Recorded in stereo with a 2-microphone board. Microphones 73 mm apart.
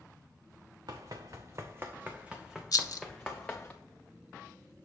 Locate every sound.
0.9 s running footsteps: 65° right (ahead or behind), 1.0 m; by 3.7 s 20° left (ahead or behind), 1.4 m
2.7 s a rattle: 55° left (ahead or behind), 0.5 m